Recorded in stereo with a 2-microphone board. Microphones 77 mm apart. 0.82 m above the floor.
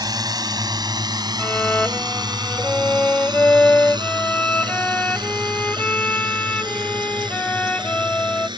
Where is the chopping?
No chopping in this recording.